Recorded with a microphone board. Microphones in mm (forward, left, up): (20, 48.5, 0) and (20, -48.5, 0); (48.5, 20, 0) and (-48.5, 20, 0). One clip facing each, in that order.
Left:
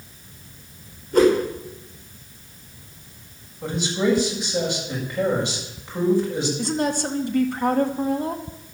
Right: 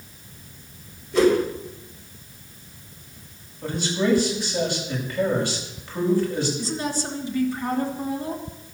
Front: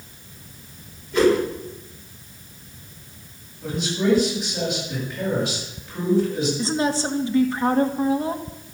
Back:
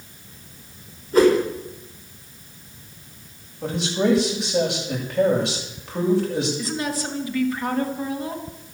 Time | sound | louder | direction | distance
1.1 | a whoosh | left 2 dB, back 2 dB | 130° left | 5.5 m
3.6 | a man speaking | left 1 dB, back 2 dB | 160° left | 7 m
6.6 | a woman speaking | left 4 dB, front 4 dB | 60° left | 2 m